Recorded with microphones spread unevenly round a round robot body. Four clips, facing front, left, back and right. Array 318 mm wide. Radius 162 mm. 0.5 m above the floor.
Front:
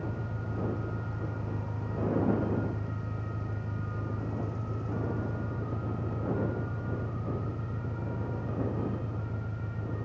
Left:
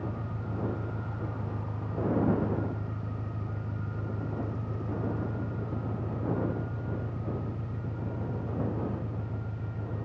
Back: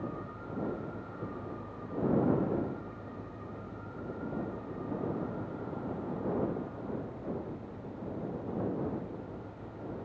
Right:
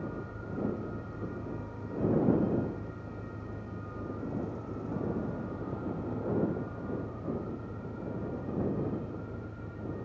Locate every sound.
0.0 s an engine running: 50° left